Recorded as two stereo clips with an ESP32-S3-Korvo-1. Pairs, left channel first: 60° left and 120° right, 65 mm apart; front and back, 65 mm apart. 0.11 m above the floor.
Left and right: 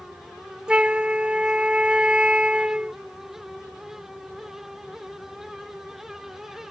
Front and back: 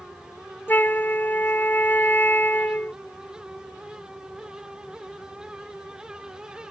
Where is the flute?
50° right.